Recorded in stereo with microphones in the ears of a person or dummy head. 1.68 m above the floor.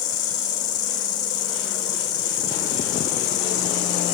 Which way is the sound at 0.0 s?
25° left (ahead or behind).